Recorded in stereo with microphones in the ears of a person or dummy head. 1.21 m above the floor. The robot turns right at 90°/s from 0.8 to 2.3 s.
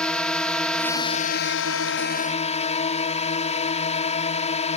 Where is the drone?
5° left; by 4.8 s 140° left.